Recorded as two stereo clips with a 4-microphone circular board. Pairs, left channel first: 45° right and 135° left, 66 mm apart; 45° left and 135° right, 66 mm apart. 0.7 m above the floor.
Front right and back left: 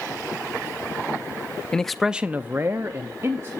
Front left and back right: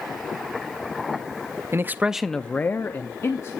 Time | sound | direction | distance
1.7 | a man speaking | 120° right | 0.6 m